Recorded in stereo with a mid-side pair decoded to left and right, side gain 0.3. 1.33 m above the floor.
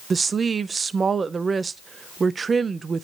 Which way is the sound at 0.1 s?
55° right.